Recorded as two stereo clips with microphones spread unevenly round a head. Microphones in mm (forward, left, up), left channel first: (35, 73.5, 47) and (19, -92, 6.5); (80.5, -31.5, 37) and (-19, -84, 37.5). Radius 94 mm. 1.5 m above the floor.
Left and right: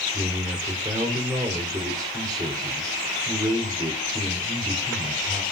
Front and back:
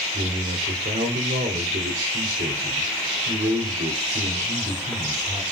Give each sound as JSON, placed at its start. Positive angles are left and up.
{"t": 0.1, "sound": "a man speaking", "azimuth_deg": -170, "distance_m": 5.0}